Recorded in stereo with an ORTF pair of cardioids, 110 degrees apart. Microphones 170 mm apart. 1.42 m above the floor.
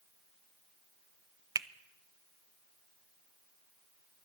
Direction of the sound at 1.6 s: 20° right.